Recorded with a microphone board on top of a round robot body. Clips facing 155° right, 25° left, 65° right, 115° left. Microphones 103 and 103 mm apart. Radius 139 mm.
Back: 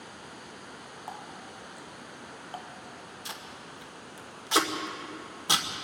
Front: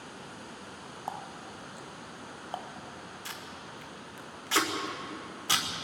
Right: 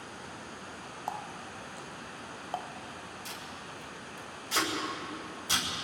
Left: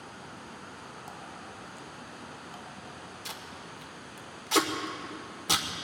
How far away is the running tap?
About 1.1 m.